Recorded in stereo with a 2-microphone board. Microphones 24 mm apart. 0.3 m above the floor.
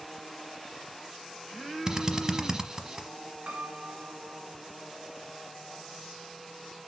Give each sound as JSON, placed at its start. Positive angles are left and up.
{"t": 1.9, "sound": "a drill", "side_deg": -25, "distance_m": 0.9}
{"t": 3.5, "sound": "a piano", "side_deg": -55, "distance_m": 1.6}